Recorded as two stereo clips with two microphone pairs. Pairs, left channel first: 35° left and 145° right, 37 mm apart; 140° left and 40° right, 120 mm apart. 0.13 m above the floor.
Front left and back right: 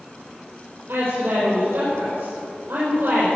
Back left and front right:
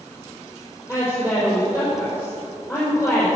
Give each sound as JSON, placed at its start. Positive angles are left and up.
{"t": 0.9, "sound": "a woman speaking", "azimuth_deg": -155, "distance_m": 4.0}